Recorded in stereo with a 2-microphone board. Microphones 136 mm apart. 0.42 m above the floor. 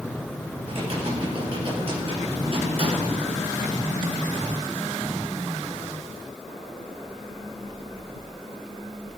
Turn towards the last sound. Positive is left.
turn(degrees=-45)  # may be behind; listen again after turning